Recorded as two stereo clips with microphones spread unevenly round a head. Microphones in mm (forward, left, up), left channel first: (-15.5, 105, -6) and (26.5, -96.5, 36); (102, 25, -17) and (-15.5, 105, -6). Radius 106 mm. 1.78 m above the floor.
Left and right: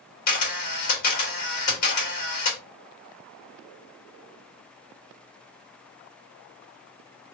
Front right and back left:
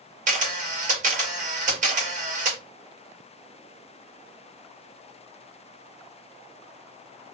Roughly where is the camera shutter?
Behind left.